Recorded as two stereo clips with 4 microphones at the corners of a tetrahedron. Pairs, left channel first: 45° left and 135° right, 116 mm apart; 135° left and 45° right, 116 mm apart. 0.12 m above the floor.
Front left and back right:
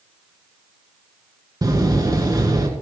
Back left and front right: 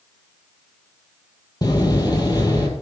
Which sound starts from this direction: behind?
A door slam, at 1.6 s.